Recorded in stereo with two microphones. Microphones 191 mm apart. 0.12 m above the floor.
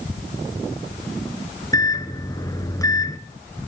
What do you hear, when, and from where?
1.7 s a microwave: 20° left (ahead or behind), 1.1 m